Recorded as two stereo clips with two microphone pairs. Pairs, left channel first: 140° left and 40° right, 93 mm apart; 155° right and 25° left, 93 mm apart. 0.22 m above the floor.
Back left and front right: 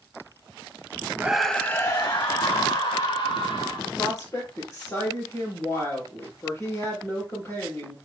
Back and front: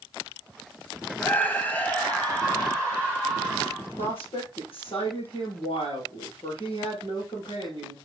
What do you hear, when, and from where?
1.2 s a scream: 100° right, 1.0 m; by 3.9 s 130° left, 3 m
3.8 s a woman speaking: 160° right, 5.5 m